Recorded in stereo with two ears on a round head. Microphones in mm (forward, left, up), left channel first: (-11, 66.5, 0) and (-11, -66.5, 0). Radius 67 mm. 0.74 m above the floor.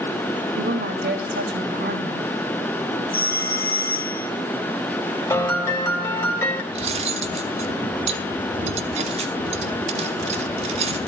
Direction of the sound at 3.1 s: 70° left (ahead or behind).